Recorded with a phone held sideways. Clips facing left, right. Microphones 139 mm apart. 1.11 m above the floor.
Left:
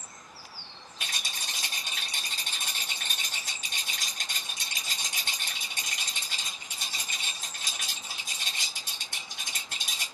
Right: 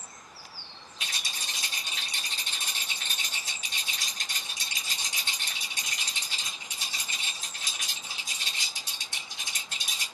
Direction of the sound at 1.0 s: 55° left (ahead or behind).